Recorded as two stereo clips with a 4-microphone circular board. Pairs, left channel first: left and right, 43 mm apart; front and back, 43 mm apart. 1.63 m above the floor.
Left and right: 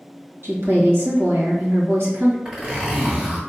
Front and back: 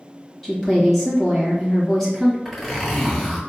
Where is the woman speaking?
85° right, 1.4 m.